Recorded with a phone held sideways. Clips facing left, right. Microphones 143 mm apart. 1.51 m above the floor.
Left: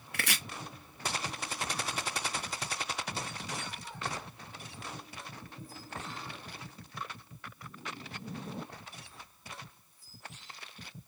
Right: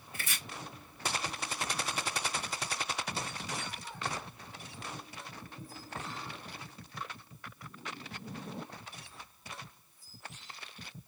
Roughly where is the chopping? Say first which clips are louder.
Left 6 dB; left.